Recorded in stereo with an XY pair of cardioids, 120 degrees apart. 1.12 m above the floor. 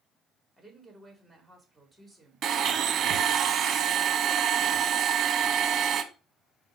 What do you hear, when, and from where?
0.6 s a woman speaking: straight ahead, 2.5 m
2.4 s a blender: 50° right, 0.9 m